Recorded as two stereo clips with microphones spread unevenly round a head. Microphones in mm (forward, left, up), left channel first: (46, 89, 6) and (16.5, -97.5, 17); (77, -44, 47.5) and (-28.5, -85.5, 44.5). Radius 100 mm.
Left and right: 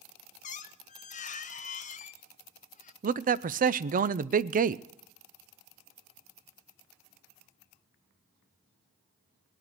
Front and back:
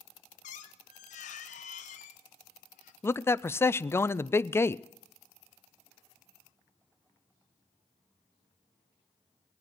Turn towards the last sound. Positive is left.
turn(degrees=-50)